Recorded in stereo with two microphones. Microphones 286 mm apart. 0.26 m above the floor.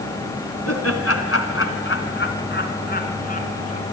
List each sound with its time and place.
0.7 s laughter: 60° left (ahead or behind), 2 m; by 3.8 s 25° left (ahead or behind), 3 m